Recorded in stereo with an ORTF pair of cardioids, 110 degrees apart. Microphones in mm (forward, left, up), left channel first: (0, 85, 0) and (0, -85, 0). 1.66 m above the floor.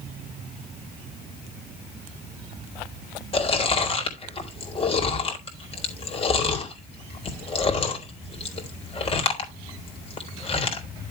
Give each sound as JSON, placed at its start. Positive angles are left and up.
{"t": 3.3, "sound": "chewing", "azimuth_deg": 35, "distance_m": 3.5}